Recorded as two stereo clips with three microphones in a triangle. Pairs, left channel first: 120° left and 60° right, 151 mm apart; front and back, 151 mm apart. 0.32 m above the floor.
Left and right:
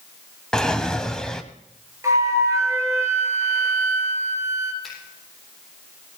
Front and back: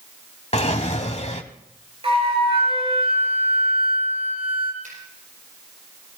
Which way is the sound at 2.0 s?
130° right.